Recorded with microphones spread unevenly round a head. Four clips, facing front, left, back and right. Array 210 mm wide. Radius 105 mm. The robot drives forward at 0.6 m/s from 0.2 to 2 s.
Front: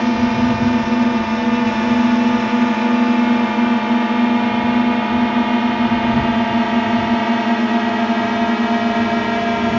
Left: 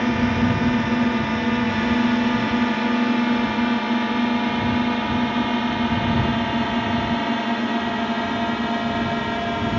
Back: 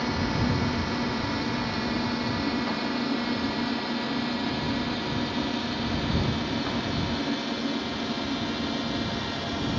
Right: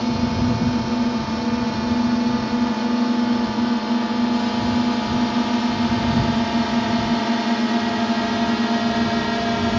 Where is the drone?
5° left; by 9.8 s 15° right.